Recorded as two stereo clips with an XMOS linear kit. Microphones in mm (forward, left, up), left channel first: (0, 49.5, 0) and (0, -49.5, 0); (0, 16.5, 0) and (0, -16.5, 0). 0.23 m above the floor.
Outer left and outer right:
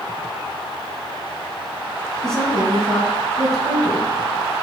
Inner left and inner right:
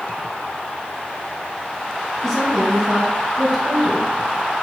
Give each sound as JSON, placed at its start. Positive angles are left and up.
{"t": 2.2, "sound": "a woman speaking", "side_deg": 5, "distance_m": 1.0}